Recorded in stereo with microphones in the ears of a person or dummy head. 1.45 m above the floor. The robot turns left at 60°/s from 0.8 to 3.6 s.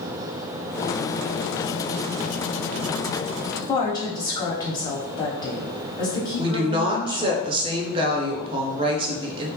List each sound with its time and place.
3.5 s a woman speaking: 20° left (ahead or behind), 0.8 m
6.4 s a woman speaking: 25° right (ahead or behind), 0.6 m